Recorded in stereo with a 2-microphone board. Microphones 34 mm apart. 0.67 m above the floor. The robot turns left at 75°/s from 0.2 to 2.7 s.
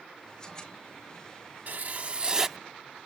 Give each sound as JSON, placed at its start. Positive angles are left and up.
{"t": 1.7, "sound": "writing", "azimuth_deg": -100}